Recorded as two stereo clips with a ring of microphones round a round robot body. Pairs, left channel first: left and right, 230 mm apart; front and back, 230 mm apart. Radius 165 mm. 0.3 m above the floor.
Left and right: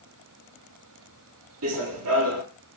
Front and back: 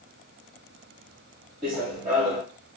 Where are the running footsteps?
105° right, 0.5 m.